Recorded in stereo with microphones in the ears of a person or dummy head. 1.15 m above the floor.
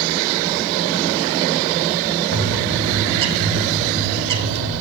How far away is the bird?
About 2.5 m.